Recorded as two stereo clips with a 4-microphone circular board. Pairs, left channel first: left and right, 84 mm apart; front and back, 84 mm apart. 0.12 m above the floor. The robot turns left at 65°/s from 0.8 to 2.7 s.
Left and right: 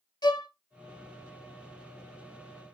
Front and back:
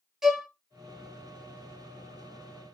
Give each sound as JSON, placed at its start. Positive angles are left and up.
{"t": 0.2, "sound": "a violin", "azimuth_deg": 95, "distance_m": 0.8}